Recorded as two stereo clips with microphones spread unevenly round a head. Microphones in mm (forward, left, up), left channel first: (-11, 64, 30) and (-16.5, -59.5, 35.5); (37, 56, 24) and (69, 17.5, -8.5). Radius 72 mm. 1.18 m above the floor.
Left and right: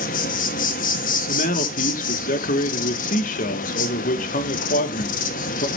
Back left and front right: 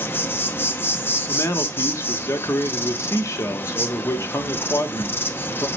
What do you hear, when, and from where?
0.0 s an insect: 105° left, 0.9 m
1.3 s a man speaking: 95° left, 1.4 m